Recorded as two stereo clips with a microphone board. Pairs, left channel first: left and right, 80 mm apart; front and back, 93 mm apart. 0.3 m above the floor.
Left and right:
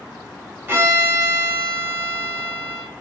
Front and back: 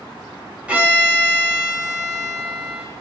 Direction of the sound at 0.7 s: 115° right.